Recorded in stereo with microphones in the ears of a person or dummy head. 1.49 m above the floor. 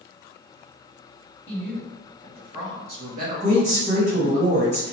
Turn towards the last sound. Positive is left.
turn(degrees=-35)  # may be behind; listen again after turning